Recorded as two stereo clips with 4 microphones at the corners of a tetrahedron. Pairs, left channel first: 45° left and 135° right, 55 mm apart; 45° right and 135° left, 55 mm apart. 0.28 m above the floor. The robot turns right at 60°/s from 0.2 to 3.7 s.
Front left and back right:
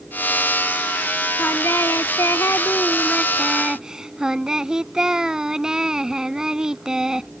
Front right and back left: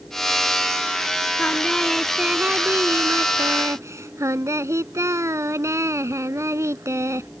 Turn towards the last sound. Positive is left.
turn(degrees=150)